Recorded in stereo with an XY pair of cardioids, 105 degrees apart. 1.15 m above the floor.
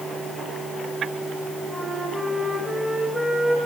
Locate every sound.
1.7 s a flute: 5° right, 5 m